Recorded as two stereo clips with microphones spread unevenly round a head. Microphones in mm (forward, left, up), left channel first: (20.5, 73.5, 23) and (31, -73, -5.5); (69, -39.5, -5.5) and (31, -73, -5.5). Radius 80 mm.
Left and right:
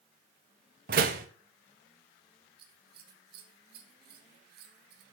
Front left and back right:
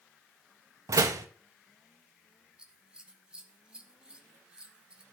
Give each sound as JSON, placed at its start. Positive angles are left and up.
{"t": 0.9, "sound": "a door slam", "azimuth_deg": -130, "distance_m": 1.8}
{"t": 2.6, "sound": "scissors", "azimuth_deg": -65, "distance_m": 2.5}